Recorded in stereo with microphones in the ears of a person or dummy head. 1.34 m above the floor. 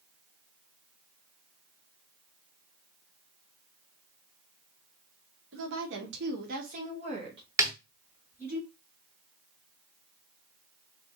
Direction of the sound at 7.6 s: 20° right (ahead or behind).